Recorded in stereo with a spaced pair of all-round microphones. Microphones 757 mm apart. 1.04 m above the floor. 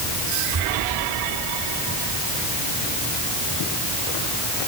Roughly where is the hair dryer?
I don't hear a hair dryer.